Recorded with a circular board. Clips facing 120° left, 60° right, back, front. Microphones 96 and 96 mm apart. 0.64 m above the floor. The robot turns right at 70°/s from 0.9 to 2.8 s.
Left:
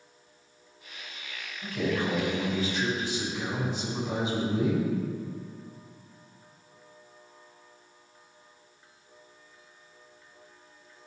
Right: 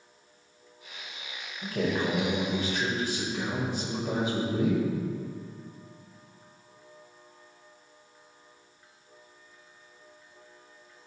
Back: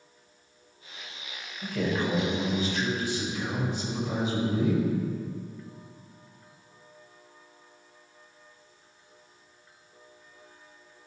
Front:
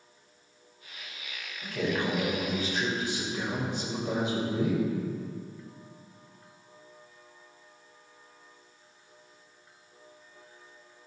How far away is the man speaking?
About 2.5 m.